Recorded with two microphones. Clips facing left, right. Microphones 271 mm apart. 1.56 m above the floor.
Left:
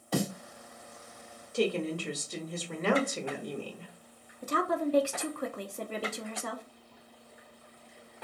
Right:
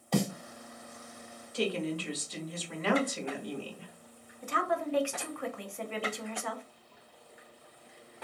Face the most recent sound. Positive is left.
turn(degrees=45)  # may be behind; listen again after turning